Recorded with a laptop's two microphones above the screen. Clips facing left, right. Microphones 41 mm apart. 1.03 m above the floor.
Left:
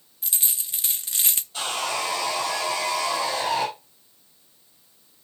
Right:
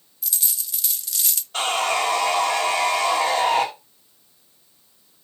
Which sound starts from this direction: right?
Sawing, at 1.5 s.